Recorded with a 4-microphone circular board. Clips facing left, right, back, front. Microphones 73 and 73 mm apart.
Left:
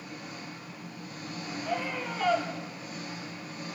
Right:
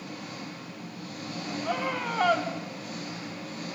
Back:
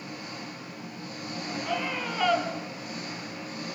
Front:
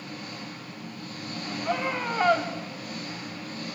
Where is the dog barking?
No dog barking in this recording.